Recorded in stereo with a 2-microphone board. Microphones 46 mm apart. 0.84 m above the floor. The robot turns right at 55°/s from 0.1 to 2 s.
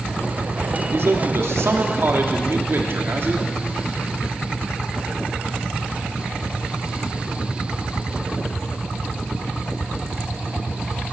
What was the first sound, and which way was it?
A man speaking, 120° right.